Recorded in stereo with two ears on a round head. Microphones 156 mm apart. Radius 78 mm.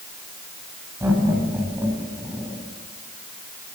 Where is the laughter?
15° right (ahead or behind), 9.5 m.